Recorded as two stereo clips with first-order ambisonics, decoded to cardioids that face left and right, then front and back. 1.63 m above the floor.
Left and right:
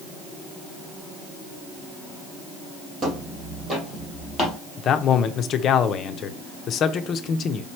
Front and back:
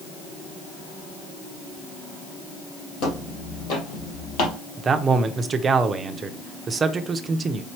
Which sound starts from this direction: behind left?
A man speaking, at 4.8 s.